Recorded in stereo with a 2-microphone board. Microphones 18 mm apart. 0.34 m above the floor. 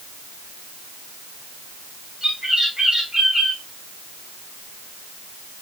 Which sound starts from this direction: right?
A bird, at 2.2 s.